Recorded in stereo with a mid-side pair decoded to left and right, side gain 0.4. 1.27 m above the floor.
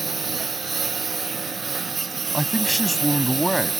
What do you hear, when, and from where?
0.0 s a lawn mower: 40° right; by 3.8 s 35° right
2.3 s a man speaking: 5° right